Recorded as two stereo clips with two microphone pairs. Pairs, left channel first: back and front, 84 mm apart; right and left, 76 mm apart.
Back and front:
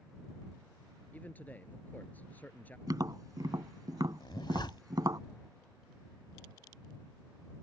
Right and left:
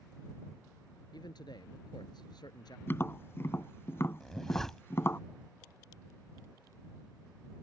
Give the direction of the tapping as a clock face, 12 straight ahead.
1 o'clock.